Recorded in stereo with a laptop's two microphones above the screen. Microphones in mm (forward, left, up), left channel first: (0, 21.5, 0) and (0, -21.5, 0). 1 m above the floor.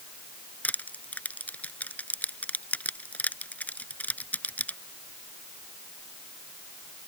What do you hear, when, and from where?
0.6 s crushing: 35° left (ahead or behind)